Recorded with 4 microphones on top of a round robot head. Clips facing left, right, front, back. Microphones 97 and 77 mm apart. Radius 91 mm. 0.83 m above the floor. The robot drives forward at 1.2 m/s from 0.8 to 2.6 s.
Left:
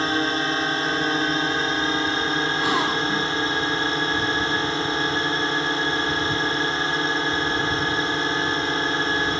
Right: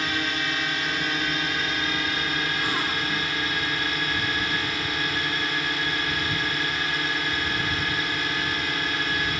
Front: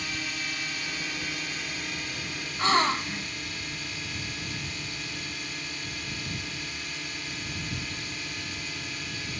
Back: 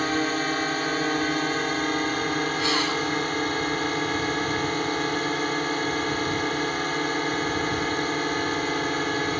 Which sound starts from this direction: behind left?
A drone, at 0.0 s.